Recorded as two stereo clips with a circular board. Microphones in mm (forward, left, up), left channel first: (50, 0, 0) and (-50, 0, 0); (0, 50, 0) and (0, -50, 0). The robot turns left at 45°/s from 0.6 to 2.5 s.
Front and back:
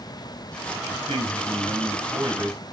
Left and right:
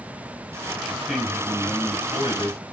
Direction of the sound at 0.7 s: 160° right.